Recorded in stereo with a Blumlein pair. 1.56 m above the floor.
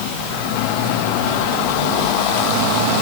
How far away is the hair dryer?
I don't hear a hair dryer.